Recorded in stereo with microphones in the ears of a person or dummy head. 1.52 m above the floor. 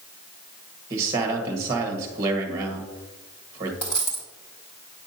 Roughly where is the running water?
No running water in this recording.